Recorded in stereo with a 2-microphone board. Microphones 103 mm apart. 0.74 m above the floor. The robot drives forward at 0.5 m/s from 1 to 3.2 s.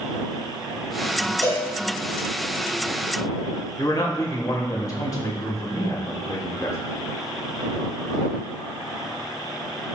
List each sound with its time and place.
1.4 s a cowbell: 30° left (ahead or behind), 4 m
3.8 s a man speaking: 35° left (ahead or behind), 2.5 m